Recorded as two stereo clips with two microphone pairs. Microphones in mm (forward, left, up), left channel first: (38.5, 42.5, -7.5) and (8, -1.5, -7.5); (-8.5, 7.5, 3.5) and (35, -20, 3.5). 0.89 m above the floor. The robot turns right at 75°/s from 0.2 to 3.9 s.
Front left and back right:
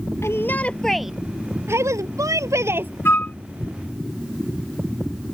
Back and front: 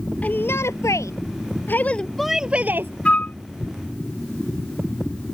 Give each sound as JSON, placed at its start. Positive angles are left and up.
{"t": 0.2, "sound": "a shout", "azimuth_deg": 85}
{"t": 3.0, "sound": "a flute", "azimuth_deg": 85}